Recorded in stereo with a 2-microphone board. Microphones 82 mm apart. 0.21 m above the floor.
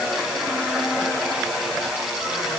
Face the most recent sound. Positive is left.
No sound to turn to.